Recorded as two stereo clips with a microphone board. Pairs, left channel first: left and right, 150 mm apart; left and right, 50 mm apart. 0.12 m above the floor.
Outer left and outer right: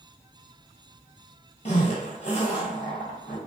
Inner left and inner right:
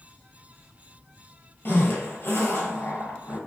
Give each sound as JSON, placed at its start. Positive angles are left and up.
{"t": 1.6, "sound": "a zipper", "side_deg": 45, "distance_m": 0.9}